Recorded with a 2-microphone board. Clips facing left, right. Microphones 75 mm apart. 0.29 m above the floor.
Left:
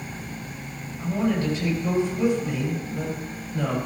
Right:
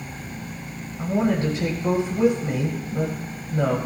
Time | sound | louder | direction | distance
1.0 | a woman speaking | right 2 dB | 40° right (ahead or behind) | 1.5 m